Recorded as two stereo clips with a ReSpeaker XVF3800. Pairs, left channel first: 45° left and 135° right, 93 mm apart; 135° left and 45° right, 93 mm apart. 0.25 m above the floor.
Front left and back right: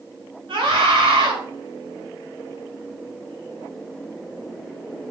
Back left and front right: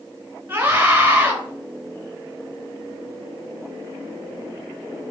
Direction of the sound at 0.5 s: 110° right.